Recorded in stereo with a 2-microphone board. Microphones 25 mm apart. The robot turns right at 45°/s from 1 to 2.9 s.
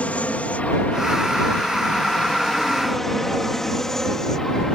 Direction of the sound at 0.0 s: 60° left (ahead or behind).